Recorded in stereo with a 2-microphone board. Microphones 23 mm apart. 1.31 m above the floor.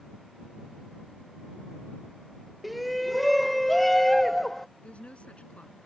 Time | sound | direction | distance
2.6 | a shout | centre (ahead or behind) | ?
4.8 | a woman speaking | 65° left (ahead or behind) | ?